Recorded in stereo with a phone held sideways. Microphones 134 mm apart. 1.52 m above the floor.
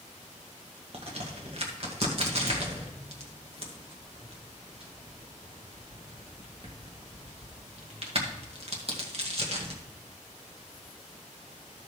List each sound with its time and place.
0.9 s a crack: 50° right (ahead or behind), 1.8 m